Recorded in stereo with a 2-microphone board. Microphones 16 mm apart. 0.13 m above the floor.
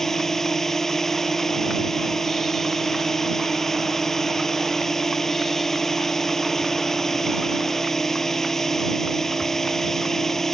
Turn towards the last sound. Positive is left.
turn(degrees=25)  # may be behind; listen again after turning